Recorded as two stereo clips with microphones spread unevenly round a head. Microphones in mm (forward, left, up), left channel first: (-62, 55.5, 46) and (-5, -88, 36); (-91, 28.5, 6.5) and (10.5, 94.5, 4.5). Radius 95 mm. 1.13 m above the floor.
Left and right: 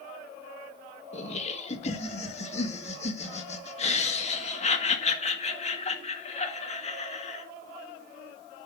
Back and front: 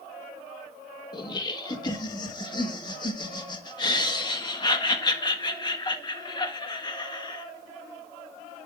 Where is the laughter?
160° left, 1.6 m.